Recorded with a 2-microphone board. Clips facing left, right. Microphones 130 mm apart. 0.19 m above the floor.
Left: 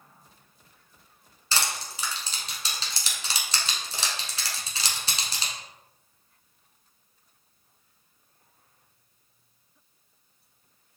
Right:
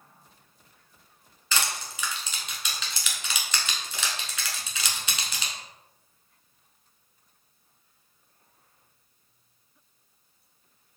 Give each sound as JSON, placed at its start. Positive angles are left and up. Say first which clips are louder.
{"t": 1.5, "sound": "crushing", "louder": "even", "side_deg": 35, "distance_m": 0.9}